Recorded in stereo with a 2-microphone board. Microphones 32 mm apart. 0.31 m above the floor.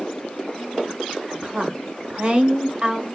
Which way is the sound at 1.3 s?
35° right (ahead or behind).